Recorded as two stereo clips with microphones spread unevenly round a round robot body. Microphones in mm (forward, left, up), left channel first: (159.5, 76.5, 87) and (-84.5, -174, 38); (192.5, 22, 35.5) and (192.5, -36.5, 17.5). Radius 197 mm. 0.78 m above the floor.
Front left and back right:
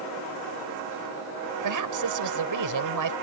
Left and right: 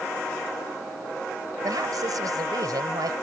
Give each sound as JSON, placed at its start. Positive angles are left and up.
{"t": 1.6, "sound": "a woman speaking", "azimuth_deg": -105}